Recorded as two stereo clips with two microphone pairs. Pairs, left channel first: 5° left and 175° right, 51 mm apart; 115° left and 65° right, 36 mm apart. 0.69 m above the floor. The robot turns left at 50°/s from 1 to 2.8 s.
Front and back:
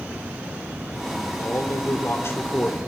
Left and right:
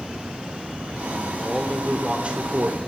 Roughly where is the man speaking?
Ahead left.